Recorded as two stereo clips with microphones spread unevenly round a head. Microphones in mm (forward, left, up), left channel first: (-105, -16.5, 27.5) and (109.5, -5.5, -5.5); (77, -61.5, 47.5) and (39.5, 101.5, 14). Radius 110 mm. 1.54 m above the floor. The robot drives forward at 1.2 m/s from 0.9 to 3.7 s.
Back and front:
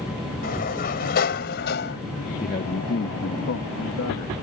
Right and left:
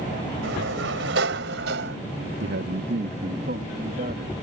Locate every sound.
0.4 s a sliding door: 135° left; by 2.0 s 140° left
2.4 s a man speaking: 125° left; by 4.3 s 155° left